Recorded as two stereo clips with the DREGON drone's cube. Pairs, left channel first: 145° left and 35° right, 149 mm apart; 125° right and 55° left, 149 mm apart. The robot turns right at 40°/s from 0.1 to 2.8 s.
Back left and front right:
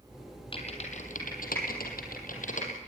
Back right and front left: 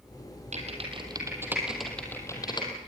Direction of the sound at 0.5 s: 95° left.